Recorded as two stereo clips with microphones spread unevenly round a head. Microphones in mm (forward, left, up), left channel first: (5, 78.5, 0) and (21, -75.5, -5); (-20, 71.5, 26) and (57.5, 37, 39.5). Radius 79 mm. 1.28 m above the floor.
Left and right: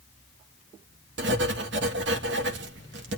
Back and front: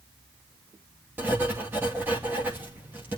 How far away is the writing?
About 2.5 m.